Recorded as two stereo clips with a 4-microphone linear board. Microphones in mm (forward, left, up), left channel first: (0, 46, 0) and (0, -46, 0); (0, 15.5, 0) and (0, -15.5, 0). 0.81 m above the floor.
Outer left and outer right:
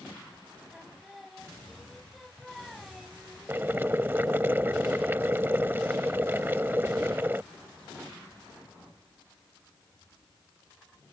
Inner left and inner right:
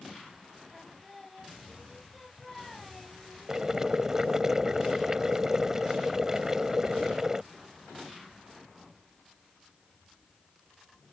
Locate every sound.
0.7 s singing: centre (ahead or behind)
3.5 s boiling: 25° right (ahead or behind)